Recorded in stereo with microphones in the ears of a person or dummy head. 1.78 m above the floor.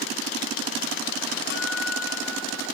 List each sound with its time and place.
1.5 s a guitar: 65° left (ahead or behind), 3.5 m